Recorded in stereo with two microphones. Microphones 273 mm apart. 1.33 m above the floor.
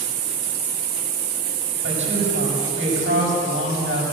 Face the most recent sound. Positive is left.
turn(degrees=-45)  # may be behind; listen again after turning